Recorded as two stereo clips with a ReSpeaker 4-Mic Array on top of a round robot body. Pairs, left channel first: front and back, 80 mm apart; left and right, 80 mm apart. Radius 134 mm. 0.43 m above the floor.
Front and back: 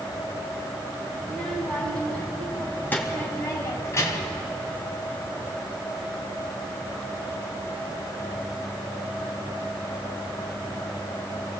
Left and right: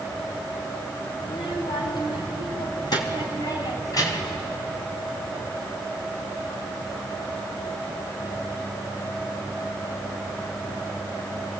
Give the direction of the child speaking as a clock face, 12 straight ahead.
9 o'clock.